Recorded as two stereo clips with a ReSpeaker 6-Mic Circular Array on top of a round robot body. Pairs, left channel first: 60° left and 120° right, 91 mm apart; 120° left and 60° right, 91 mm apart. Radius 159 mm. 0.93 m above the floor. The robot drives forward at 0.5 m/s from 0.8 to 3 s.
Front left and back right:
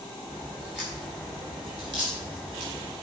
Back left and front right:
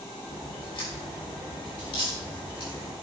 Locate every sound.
0.3 s a crack: 155° left, 5 m; by 2.9 s 160° left, 6 m